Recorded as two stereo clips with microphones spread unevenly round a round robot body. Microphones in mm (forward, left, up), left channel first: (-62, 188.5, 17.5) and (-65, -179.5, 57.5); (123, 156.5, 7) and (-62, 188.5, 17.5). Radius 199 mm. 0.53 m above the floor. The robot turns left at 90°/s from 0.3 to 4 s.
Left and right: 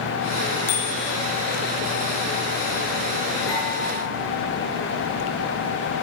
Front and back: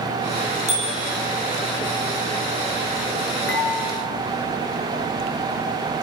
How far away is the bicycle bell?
About 7.5 m.